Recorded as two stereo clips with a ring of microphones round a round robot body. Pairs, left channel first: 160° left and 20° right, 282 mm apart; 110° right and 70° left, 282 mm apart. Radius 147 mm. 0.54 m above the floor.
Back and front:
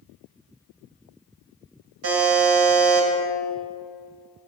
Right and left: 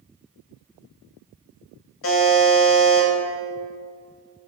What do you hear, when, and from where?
2.0 s a buzzer: 65° right, 1.0 m